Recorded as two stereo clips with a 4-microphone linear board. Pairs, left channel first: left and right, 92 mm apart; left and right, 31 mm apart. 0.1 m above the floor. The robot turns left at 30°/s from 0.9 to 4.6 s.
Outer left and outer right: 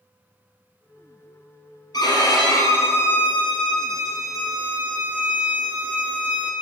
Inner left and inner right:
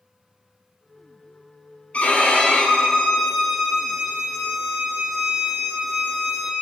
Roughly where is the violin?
Ahead left.